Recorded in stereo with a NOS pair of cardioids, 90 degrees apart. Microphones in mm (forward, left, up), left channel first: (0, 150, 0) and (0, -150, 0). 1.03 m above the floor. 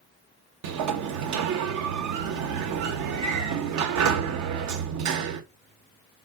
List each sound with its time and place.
0.6 s a sliding door: 65° right, 0.6 m